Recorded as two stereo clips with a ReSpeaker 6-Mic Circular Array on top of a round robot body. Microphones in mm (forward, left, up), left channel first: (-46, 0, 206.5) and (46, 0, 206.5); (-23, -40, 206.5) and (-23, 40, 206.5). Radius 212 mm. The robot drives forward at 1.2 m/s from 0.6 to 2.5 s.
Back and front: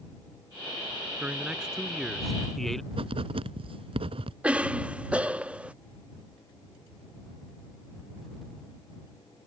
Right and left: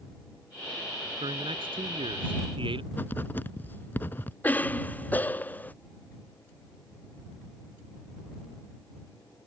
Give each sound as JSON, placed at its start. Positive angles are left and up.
{"t": 1.2, "sound": "a man speaking", "azimuth_deg": 75}
{"t": 2.9, "sound": "writing", "azimuth_deg": -20}
{"t": 4.4, "sound": "a cough", "azimuth_deg": -60}